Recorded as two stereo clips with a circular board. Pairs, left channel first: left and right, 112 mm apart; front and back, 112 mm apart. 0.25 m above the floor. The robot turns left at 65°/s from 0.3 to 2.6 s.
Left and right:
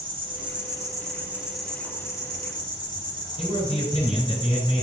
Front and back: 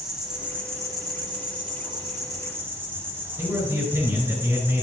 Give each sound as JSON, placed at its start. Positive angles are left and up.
{"t": 0.0, "sound": "an insect", "azimuth_deg": -95, "distance_m": 2.0}
{"t": 3.4, "sound": "a man speaking", "azimuth_deg": 115, "distance_m": 3.5}